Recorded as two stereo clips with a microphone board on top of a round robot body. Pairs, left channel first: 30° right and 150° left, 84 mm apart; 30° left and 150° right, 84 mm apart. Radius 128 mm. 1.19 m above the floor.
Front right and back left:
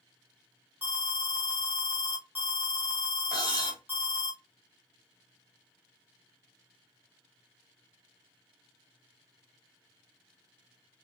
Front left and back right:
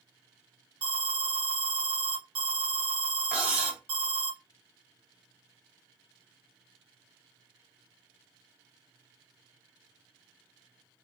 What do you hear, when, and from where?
0.8 s an alarm: 140° right, 0.8 m
3.3 s cutlery clinking: 125° left, 1.1 m